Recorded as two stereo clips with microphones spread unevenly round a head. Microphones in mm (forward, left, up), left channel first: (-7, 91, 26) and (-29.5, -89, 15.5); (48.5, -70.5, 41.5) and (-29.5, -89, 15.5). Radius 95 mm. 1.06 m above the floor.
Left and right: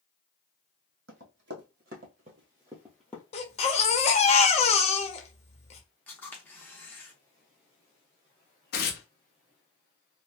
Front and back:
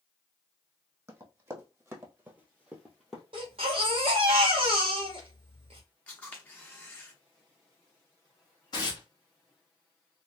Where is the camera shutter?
15° left, 0.6 m.